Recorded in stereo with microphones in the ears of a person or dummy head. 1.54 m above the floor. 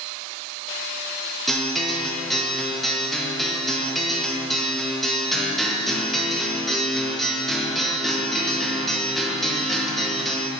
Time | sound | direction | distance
1.5 | a guitar | centre (ahead or behind) | 0.7 m